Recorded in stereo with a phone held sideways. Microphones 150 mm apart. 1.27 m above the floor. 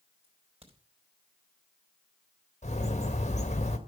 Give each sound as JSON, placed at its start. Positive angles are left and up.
{"t": 0.2, "sound": "a crack", "side_deg": -40, "distance_m": 4.0}
{"t": 2.6, "sound": "a bird", "side_deg": 50, "distance_m": 1.8}